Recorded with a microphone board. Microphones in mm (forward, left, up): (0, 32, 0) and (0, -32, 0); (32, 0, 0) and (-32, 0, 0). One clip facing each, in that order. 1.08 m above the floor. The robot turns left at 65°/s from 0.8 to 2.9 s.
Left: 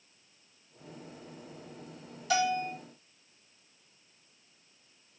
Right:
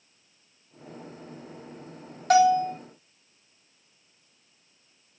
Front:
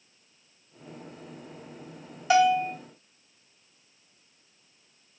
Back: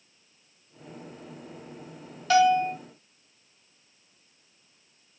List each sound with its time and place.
2.3 s a bell: 70° right, 2 m; by 2.7 s 100° right, 2 m